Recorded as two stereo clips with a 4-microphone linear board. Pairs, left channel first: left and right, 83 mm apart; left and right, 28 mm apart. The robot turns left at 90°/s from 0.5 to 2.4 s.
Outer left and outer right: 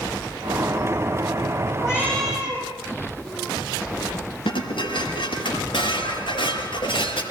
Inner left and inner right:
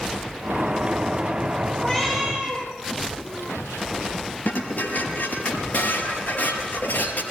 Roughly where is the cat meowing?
Ahead left.